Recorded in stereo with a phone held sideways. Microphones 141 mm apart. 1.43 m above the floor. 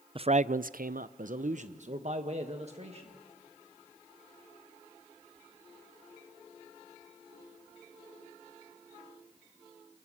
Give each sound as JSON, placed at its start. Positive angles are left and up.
{"t": 0.1, "sound": "a man speaking", "side_deg": -40, "distance_m": 0.5}